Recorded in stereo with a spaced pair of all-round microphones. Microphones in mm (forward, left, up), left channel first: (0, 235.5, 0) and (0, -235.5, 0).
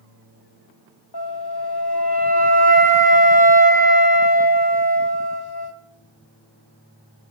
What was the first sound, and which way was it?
A flute, 55° left (ahead or behind).